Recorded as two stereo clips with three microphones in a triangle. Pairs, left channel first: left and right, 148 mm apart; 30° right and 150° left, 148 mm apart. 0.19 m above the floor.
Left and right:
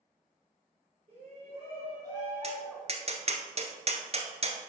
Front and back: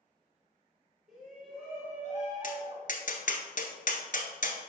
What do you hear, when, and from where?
1.1 s a shout: 120° right, 3 m; by 3.0 s straight behind, 2.0 m
2.4 s tapping: 50° right, 1.3 m